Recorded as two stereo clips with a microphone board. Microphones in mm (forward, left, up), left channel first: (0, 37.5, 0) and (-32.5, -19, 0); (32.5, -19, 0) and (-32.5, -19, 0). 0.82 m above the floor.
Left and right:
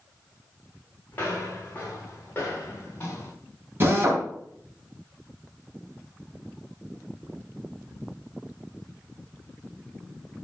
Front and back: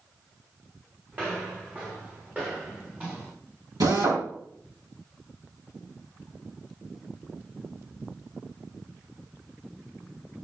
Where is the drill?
175° right, 3.5 m.